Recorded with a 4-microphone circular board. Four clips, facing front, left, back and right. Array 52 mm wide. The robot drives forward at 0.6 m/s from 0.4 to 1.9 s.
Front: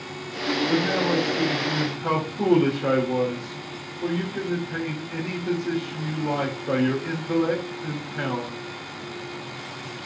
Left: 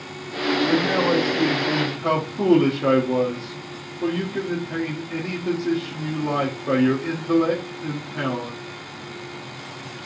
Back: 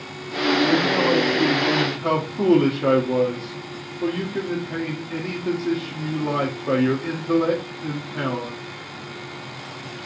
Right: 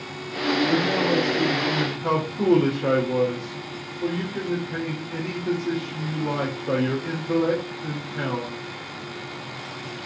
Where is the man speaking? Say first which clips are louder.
Left 2 dB, back 4 dB; 115° left, 1.4 m; by 8.6 s 140° left, 1.8 m.